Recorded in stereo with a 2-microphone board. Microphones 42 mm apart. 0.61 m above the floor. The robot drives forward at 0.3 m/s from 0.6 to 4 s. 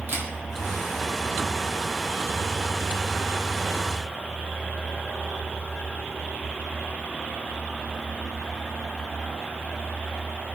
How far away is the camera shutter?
About 3.5 m.